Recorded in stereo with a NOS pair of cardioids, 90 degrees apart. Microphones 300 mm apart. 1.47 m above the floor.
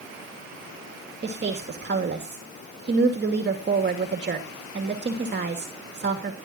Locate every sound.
1.2 s a woman speaking: 35° right, 2.5 m